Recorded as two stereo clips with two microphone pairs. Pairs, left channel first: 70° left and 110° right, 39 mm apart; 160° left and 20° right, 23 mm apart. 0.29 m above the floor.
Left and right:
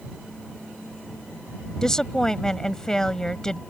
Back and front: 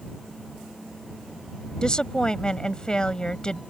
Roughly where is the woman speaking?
Behind left.